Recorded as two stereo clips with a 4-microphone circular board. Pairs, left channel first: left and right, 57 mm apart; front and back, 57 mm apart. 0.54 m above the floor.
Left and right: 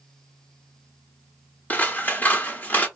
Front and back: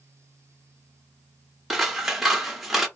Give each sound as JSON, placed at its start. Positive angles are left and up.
{"t": 1.7, "sound": "scissors", "azimuth_deg": 100, "distance_m": 0.6}